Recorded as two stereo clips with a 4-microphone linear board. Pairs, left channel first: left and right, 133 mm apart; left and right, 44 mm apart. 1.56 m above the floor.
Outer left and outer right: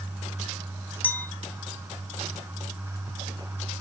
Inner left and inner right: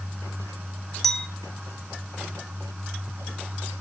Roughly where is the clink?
Centre.